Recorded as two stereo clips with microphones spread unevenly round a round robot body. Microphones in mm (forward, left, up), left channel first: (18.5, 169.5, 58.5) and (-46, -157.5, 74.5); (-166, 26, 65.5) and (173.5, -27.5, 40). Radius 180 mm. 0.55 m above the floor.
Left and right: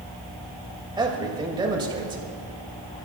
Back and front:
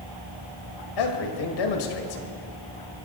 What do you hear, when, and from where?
1.0 s a man speaking: straight behind, 2.5 m